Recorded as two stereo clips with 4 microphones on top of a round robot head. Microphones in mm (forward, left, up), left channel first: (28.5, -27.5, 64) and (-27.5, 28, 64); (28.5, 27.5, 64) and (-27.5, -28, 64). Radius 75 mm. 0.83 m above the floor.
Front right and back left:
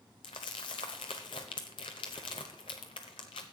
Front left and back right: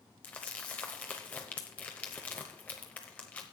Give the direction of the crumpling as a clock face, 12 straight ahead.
1 o'clock.